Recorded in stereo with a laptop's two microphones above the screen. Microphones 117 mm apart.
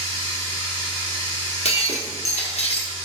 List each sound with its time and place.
0.0 s running water: 25° left (ahead or behind), 1.8 m
1.6 s breaking glass: 70° left (ahead or behind), 0.8 m